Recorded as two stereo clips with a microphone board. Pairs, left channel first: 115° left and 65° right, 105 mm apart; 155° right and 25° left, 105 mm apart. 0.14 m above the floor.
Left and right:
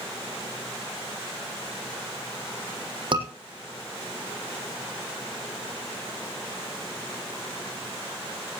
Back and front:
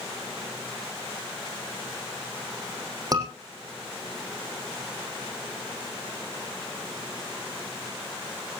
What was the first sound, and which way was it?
A scream, 30° right.